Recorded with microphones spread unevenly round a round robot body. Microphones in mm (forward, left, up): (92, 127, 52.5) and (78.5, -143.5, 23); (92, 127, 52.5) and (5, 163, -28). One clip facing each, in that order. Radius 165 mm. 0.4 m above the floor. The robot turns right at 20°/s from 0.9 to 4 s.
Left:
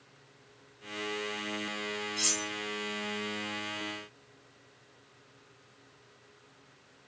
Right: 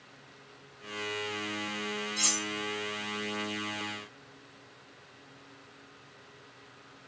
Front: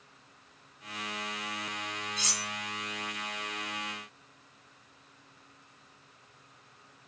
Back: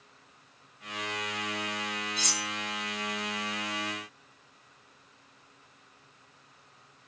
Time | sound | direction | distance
2.2 | cutlery clinking | 150° right | 0.9 m